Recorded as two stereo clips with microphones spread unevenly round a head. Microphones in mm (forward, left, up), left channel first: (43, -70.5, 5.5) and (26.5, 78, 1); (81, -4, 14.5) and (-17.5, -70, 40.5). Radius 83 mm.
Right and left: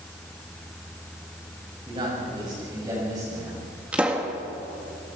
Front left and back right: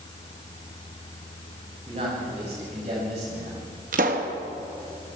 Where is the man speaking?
160° left, 7.5 m; by 3.6 s 170° left, 8.5 m.